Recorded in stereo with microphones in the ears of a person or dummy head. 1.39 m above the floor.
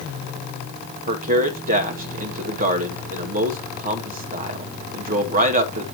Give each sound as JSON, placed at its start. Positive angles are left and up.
{"t": 1.1, "sound": "a man speaking", "side_deg": -50, "distance_m": 1.0}